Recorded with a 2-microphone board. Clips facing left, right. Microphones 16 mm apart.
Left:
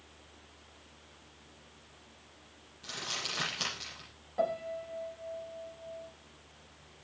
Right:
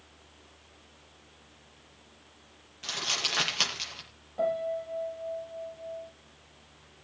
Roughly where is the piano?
Centre.